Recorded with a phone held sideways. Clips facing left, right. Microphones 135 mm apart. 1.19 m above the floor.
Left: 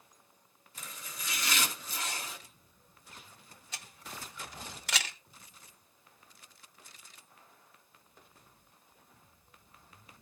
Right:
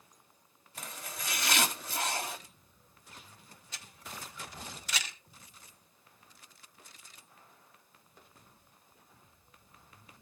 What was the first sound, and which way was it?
Chopping, 75° right (ahead or behind).